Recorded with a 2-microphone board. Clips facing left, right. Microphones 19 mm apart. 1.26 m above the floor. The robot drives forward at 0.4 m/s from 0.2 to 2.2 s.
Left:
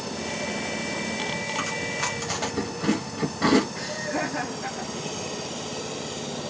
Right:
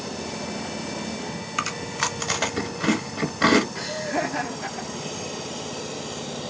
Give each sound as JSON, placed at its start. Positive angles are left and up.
{"t": 1.6, "sound": "chewing", "side_deg": -40, "distance_m": 1.3}
{"t": 3.8, "sound": "laughter", "side_deg": -30, "distance_m": 1.0}